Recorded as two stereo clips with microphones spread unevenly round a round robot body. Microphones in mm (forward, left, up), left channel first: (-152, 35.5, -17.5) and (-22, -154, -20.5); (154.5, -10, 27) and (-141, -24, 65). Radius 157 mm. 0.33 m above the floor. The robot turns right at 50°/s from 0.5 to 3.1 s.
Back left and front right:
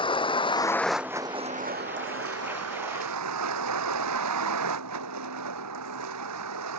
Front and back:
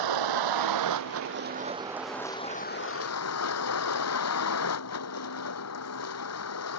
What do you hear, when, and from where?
0.0 s a vehicle: 165° right; by 6.8 s 35° right